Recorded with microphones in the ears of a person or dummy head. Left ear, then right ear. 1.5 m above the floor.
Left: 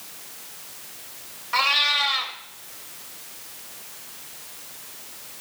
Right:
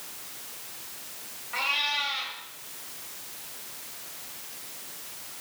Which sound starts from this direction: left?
A cat meowing, at 1.5 s.